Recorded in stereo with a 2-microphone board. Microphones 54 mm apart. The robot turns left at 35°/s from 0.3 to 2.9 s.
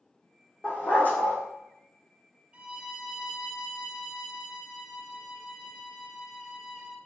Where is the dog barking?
20° left (ahead or behind), 1.4 m; by 1.4 s 45° left (ahead or behind), 1.4 m.